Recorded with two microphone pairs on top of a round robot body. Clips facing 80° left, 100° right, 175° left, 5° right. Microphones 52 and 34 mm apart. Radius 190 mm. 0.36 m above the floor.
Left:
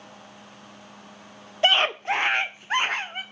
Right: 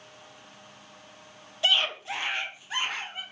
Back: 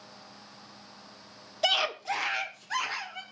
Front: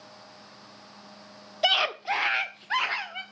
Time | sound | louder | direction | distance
1.6 | a scream | left 5 dB, front 3 dB | 65° left | 1.2 m